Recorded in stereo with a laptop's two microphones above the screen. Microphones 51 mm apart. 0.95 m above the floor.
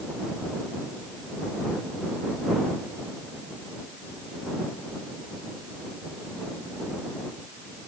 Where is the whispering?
No whispering in this recording.